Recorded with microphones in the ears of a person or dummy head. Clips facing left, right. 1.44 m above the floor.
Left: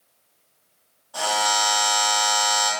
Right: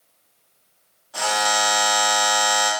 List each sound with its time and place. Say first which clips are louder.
1.1 s a buzzer: right 1 dB; 25° right (ahead or behind), 1.0 m